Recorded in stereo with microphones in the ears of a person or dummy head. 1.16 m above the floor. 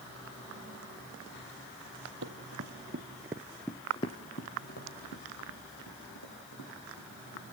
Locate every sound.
2.2 s running footsteps: 60° right (ahead or behind), 2 m; by 7.4 s 75° left (ahead or behind), 6 m